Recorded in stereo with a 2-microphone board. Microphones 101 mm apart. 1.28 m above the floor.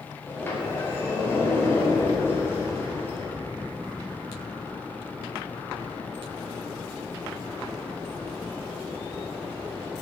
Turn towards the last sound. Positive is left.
turn(degrees=20)  # may be behind; listen again after turning